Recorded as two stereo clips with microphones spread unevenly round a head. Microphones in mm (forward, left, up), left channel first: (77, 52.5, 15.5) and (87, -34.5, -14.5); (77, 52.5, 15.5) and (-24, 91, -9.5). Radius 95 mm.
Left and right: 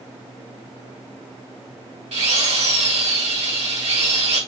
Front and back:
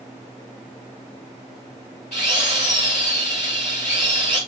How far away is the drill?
About 5.5 m.